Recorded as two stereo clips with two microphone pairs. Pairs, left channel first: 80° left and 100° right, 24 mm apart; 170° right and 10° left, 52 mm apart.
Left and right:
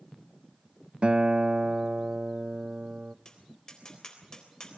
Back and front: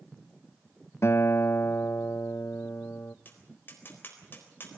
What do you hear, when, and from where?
1.0 s a guitar: 140° right, 0.5 m
3.2 s tapping: 145° left, 4 m